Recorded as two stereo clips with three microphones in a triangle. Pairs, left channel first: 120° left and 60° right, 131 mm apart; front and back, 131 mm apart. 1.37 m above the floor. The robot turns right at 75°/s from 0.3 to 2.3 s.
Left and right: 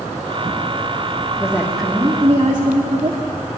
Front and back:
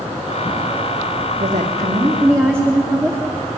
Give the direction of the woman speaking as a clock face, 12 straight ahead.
6 o'clock.